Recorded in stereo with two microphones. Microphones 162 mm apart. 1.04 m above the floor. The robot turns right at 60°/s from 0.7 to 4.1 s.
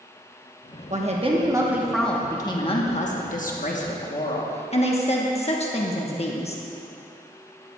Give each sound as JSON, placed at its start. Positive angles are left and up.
{"t": 0.9, "sound": "a woman speaking", "azimuth_deg": -65, "distance_m": 1.1}